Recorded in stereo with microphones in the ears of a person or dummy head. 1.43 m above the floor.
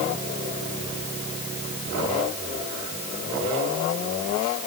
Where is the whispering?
I don't hear whispering.